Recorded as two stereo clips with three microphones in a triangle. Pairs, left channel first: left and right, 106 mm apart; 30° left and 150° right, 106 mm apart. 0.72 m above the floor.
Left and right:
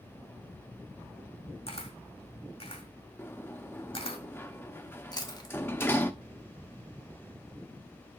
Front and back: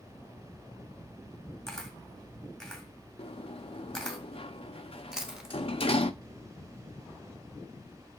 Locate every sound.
1.7 s a camera shutter: 115° left, 1.6 m
3.2 s a sliding door: 25° left, 0.6 m
5.1 s chewing: 130° left, 1.2 m